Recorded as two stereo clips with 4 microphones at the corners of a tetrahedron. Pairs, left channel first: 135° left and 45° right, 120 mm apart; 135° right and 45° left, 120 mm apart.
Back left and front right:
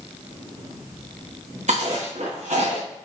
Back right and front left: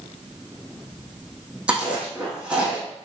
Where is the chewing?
35° right, 3.5 m.